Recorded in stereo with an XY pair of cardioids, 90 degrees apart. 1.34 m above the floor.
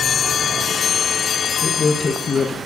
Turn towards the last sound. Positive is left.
turn(degrees=40)